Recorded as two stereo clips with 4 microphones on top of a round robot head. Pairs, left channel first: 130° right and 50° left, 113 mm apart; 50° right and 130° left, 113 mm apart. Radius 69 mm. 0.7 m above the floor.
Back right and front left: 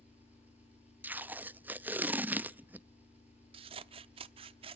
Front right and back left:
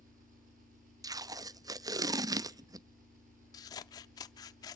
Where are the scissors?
10° left, 0.6 m.